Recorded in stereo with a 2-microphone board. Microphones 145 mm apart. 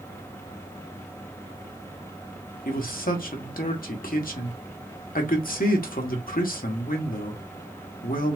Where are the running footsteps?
No running footsteps in this recording.